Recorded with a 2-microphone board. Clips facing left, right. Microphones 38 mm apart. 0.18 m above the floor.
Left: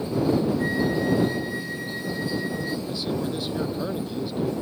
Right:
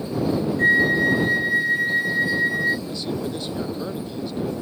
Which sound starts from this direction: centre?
A man speaking, at 2.9 s.